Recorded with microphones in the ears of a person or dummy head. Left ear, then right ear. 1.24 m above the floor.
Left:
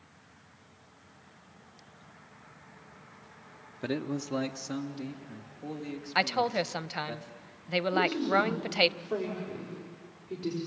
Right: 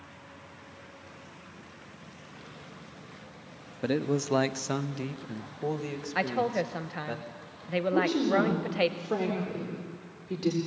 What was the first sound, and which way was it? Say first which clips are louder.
A man speaking: right 5 dB; 10° left (ahead or behind).